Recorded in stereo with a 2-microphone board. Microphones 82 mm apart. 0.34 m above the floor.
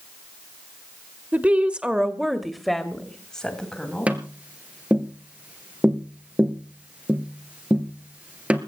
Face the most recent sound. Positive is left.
turn(degrees=-15)  # may be behind; listen again after turning